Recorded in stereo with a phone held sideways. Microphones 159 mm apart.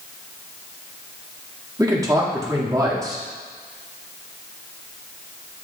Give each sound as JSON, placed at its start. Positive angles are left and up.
{"t": 1.8, "sound": "a man speaking", "side_deg": -20, "distance_m": 1.7}